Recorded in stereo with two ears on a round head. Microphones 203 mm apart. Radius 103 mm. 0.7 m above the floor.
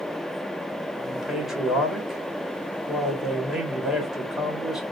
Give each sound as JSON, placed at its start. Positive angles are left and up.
{"t": 1.0, "sound": "a man speaking", "side_deg": 0, "distance_m": 1.4}